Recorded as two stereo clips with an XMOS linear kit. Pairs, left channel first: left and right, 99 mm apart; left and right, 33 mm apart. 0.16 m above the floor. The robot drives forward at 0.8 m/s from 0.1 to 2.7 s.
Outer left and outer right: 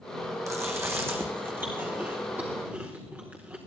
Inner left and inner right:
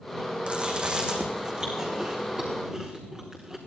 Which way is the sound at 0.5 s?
30° right (ahead or behind).